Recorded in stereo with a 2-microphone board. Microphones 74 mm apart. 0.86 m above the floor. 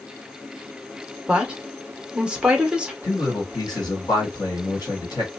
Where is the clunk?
No clunk in this recording.